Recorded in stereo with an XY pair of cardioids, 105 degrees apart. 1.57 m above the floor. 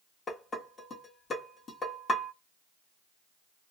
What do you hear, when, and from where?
0.3 s dishes clattering: 40° left, 1.8 m